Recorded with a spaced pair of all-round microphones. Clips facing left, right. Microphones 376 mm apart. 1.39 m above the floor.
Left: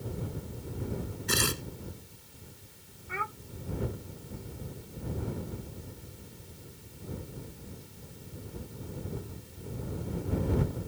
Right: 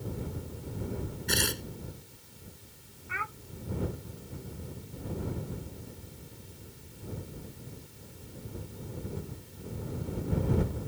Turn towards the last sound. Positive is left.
turn(degrees=55)  # may be behind; listen again after turning